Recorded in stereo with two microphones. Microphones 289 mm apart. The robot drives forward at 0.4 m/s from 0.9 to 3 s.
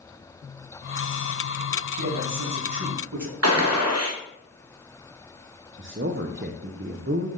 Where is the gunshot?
55° right (ahead or behind), 1.1 m.